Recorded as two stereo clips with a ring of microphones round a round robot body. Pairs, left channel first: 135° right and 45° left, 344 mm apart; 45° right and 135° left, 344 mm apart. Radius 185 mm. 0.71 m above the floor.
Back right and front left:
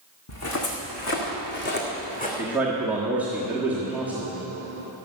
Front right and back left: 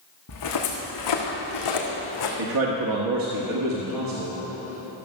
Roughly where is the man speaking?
Behind left.